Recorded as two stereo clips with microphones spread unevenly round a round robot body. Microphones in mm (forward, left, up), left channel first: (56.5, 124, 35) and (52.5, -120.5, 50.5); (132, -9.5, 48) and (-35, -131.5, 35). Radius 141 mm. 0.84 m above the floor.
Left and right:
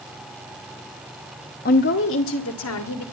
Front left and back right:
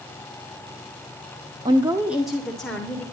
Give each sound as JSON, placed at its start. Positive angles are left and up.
{"t": 1.6, "sound": "a woman speaking", "azimuth_deg": 145, "distance_m": 1.0}